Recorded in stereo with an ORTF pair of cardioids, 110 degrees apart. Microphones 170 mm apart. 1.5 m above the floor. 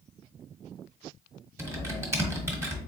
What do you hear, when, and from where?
1.6 s typing on a keyboard: 15° right, 1.2 m